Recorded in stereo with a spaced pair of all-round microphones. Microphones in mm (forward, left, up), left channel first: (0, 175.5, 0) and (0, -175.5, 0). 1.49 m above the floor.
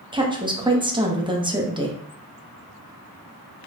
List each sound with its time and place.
0.1 s a woman speaking: 15° right (ahead or behind), 0.8 m